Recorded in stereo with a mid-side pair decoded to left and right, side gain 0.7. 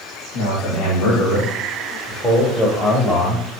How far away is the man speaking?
About 3.5 m.